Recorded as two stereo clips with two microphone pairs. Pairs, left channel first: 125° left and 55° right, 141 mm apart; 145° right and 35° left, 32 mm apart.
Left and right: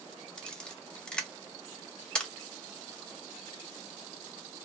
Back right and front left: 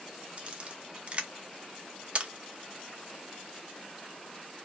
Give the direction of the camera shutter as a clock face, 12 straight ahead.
10 o'clock.